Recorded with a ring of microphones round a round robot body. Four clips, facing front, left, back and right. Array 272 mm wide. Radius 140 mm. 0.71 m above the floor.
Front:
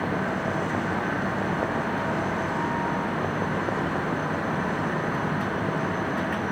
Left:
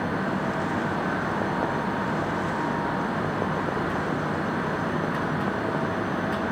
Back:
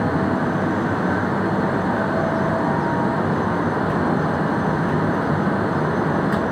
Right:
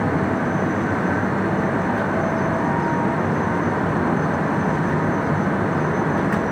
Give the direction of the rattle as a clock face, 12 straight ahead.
No rattle in this recording.